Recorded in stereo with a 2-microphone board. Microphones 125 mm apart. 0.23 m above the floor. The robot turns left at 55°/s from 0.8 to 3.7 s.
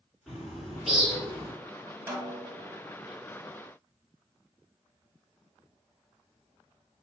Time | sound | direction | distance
0.3 | a bird | 5° left | 2.5 m
2.1 | a snare drum | 135° right | 0.9 m